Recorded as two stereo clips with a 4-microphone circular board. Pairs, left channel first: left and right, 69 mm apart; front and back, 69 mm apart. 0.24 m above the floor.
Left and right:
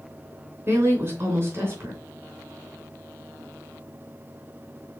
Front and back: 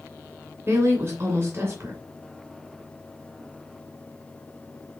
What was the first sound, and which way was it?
A woman speaking, 140° right.